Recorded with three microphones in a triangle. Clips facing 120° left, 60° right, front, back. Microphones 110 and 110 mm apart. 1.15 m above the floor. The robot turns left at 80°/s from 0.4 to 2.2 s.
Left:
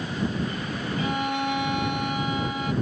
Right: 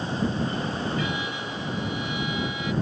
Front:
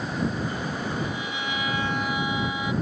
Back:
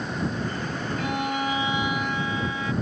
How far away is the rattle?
No rattle in this recording.